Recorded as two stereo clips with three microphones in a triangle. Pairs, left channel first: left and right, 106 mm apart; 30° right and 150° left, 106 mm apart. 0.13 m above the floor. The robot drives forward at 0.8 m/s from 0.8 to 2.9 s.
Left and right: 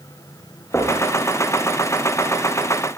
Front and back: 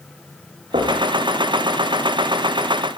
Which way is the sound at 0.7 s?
155° left.